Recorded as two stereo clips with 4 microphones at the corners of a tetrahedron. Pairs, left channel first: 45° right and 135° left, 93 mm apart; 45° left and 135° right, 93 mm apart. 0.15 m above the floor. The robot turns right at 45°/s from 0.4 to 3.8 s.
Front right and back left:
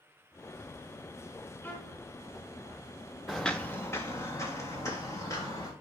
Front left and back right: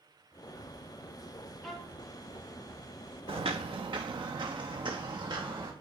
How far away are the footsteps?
About 0.5 m.